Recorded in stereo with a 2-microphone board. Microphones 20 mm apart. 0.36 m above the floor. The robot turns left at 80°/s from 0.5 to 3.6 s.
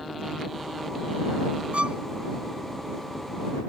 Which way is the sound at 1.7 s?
70° right (ahead or behind).